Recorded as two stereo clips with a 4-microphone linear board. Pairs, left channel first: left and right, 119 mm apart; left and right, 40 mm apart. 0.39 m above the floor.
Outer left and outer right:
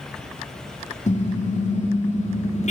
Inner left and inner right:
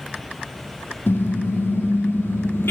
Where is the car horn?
85° left, 7.5 m; by 2.7 s 75° left (ahead or behind), 6 m.